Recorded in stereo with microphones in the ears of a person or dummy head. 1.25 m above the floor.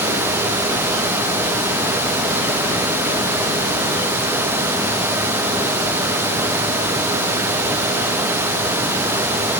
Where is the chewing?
No chewing in this recording.